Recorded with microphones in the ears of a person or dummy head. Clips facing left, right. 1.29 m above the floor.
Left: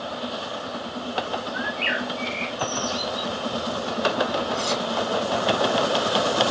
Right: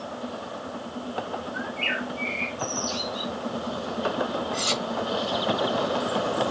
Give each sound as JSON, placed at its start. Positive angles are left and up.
{"t": 1.5, "sound": "a bird", "side_deg": 25, "distance_m": 1.2}
{"t": 4.5, "sound": "cutlery clinking", "side_deg": -25, "distance_m": 2.0}